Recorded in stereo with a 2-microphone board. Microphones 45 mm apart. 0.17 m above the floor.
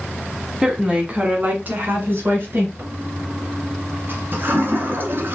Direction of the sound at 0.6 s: 15° right (ahead or behind).